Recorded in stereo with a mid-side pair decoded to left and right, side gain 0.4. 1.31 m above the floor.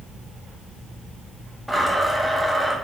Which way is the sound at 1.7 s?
Straight ahead.